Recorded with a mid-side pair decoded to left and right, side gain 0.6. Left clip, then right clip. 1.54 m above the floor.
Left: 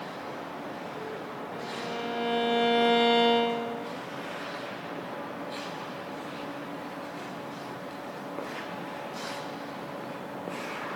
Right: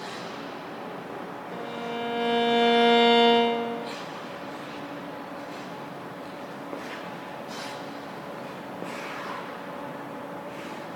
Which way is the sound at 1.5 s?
20° right.